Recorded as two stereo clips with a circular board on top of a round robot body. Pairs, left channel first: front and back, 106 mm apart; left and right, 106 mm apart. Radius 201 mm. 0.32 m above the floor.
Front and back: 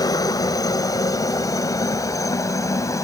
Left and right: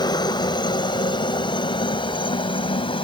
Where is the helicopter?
50° left; by 3.0 s 60° left.